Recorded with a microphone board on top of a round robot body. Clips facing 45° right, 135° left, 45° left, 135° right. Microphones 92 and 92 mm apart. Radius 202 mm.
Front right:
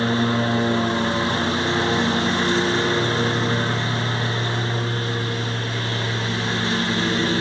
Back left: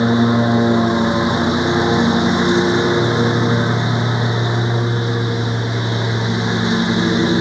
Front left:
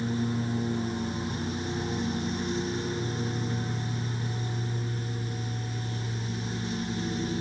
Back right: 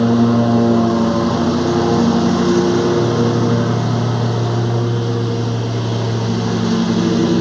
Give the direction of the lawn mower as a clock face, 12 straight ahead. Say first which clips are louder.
Back left 6 dB, back right 17 dB; 5 o'clock.